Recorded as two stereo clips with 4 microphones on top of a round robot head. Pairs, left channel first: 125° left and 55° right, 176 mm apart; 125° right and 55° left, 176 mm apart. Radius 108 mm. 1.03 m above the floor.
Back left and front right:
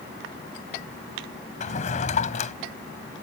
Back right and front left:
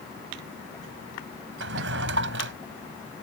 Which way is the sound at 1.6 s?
75° left.